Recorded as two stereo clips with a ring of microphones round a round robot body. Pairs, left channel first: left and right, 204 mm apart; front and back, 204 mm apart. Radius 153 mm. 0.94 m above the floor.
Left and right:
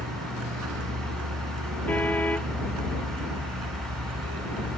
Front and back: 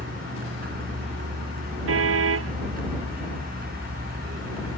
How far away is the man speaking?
No man speaking in this recording.